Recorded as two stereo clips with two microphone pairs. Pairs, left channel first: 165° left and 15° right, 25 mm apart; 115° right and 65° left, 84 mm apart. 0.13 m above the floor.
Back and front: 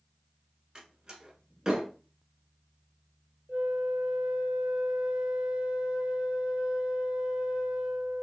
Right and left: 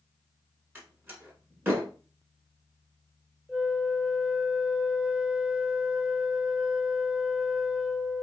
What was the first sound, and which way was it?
A door slam, 30° left.